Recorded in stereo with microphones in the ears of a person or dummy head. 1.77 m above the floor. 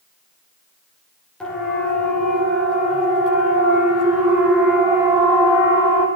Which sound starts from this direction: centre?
A siren, at 1.4 s.